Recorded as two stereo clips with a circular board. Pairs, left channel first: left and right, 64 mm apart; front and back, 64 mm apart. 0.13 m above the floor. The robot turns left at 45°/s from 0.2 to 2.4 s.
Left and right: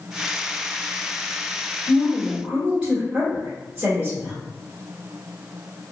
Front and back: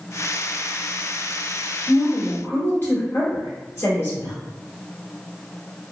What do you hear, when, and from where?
1.9 s a woman speaking: straight ahead, 2.0 m; by 4.3 s 20° right, 2.0 m